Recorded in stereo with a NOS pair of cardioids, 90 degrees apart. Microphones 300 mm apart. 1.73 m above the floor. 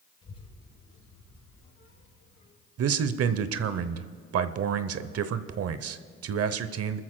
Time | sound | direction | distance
0.2 | a child speaking | 50° left | 5 m
2.8 | a man speaking | 50° right | 0.8 m